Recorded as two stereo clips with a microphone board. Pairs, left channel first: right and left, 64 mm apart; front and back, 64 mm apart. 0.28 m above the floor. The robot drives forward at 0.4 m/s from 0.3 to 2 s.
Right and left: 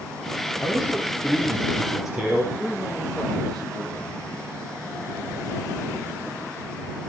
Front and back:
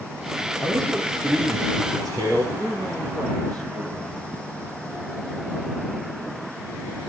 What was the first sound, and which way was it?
A man speaking, 175° left.